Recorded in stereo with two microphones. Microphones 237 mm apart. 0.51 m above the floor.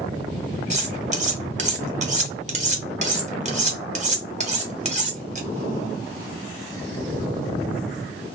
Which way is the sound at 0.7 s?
30° right (ahead or behind).